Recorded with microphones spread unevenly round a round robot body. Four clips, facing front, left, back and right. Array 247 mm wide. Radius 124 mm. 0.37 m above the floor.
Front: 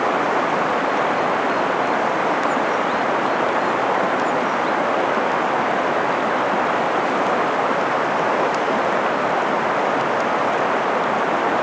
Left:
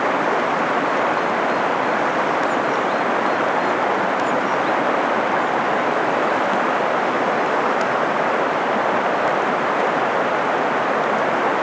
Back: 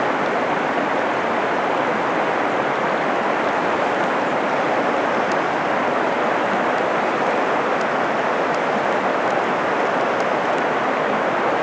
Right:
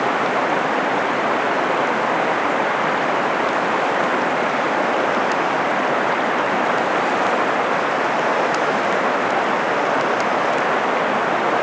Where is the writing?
I don't hear writing.